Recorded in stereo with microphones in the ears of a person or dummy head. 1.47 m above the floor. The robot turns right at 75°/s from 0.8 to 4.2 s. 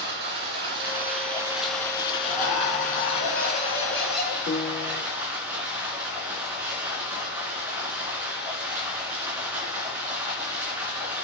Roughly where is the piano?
Left.